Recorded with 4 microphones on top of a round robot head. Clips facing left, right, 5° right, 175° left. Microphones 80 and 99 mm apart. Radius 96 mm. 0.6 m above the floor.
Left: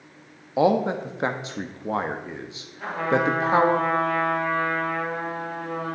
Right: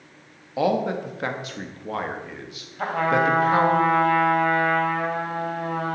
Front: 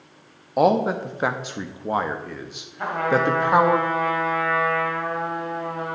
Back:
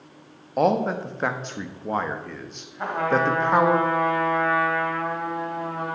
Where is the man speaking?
65° left, 0.9 m.